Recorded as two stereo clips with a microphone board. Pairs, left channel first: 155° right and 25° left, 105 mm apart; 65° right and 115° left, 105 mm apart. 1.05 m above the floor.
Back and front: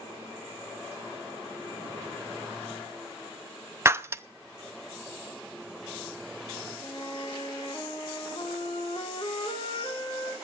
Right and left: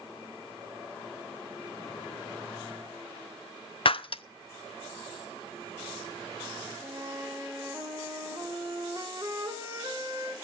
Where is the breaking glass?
40° right, 0.5 m.